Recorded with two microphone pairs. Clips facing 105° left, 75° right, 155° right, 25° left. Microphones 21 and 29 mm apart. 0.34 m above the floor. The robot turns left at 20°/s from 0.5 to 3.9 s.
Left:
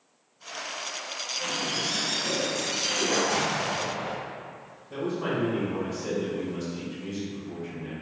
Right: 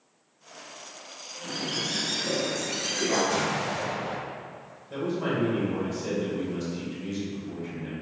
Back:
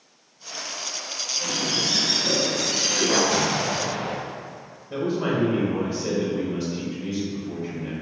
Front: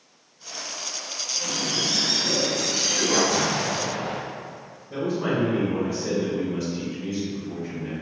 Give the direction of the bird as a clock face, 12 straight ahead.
5 o'clock.